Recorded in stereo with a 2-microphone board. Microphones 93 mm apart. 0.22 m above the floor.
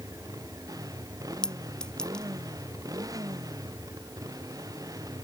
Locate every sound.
0.0 s a motorcycle: 40° right (ahead or behind)
1.4 s a clink: 10° left (ahead or behind)